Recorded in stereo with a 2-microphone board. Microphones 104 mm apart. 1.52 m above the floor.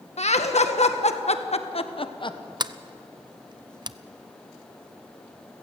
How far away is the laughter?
About 1.9 m.